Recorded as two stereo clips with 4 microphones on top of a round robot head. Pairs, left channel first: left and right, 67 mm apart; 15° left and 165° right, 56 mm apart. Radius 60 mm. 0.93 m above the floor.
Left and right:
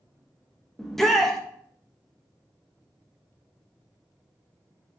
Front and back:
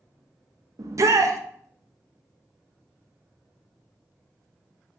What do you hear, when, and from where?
0.8 s a shout: 175° left, 0.7 m